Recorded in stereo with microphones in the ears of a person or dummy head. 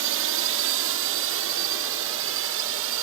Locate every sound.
0.0 s a drone: 70° right (ahead or behind); by 3.0 s 75° right (ahead or behind)